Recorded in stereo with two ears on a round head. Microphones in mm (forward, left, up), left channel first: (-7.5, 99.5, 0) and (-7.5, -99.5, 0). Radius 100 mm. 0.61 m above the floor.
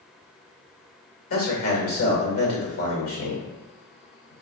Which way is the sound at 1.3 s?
70° left (ahead or behind).